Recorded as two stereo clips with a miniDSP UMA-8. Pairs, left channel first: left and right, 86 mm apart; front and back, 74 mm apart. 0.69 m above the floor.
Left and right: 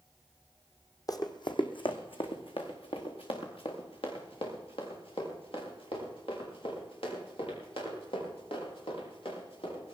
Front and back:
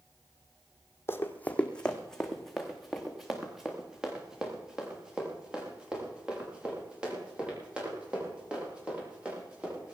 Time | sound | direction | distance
1.1 | running footsteps | 50° left | 1.2 m